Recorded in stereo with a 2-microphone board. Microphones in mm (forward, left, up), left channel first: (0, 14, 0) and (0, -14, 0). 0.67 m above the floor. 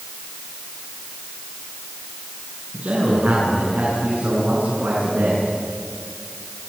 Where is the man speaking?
50° right (ahead or behind), 8.5 m; by 5.5 s 75° right (ahead or behind), 9 m.